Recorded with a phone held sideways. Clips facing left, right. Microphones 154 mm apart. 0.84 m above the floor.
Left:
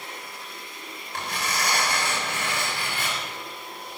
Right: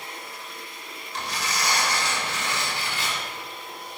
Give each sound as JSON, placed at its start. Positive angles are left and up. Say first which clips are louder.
{"t": 1.1, "sound": "tearing paper", "louder": "even", "side_deg": 60, "distance_m": 6.0}